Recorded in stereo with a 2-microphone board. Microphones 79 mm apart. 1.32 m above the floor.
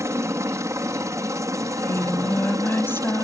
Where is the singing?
30° left (ahead or behind).